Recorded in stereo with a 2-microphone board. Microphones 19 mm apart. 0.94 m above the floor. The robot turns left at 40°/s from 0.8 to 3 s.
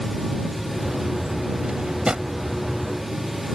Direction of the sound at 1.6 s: 85° right.